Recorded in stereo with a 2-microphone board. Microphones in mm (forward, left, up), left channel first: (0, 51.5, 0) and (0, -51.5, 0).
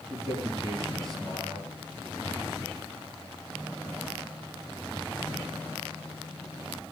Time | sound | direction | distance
0.1 | a man speaking | 35° right (ahead or behind) | 4 m